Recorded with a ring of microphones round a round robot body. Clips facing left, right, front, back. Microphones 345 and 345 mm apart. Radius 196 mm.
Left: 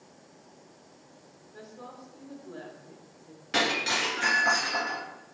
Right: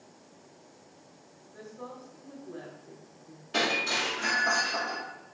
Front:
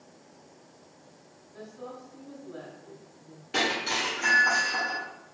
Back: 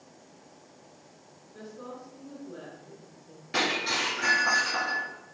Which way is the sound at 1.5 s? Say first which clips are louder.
Right 3 dB, even; 80° left.